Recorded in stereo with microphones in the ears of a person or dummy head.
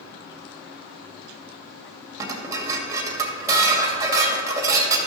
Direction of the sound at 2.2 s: 20° right (ahead or behind).